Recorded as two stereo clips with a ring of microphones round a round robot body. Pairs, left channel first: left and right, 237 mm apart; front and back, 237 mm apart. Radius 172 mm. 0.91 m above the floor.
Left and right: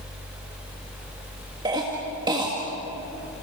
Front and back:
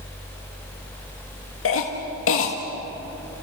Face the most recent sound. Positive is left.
turn(degrees=-15)